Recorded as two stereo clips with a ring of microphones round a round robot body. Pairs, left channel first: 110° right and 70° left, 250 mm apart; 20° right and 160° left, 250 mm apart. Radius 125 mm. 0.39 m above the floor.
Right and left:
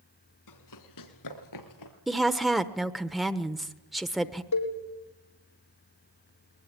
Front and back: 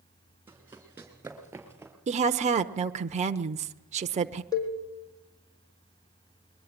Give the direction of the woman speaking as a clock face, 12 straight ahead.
7 o'clock.